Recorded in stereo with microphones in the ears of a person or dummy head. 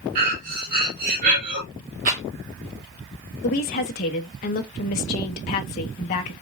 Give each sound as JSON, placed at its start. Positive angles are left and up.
{"t": 0.1, "sound": "breathing", "side_deg": -55, "distance_m": 2.5}
{"t": 2.0, "sound": "a rattle", "side_deg": -45, "distance_m": 1.1}
{"t": 3.4, "sound": "a woman speaking", "side_deg": 40, "distance_m": 0.8}